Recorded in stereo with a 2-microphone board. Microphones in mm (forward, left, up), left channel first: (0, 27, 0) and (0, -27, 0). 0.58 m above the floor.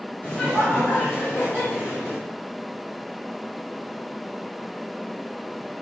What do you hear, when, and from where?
0.2 s laughter: 25° left (ahead or behind), 2.5 m; by 2.2 s 40° left (ahead or behind), 3.5 m